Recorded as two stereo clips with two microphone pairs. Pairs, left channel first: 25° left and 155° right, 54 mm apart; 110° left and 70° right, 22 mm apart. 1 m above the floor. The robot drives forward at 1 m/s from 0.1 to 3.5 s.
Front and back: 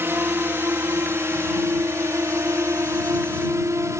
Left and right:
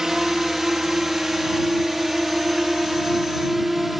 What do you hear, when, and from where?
0.0 s a drone: 135° right; by 4.0 s 150° right